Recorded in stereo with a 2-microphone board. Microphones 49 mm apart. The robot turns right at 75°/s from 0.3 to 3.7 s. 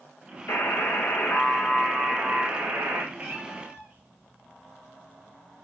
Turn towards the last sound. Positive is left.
turn(degrees=-55)  # may be behind; listen again after turning